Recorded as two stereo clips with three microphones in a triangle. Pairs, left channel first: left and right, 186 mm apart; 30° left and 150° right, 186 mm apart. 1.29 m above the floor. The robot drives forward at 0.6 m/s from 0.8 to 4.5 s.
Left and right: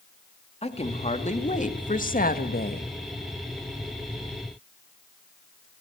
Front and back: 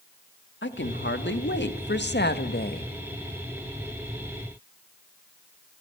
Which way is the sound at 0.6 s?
35° left.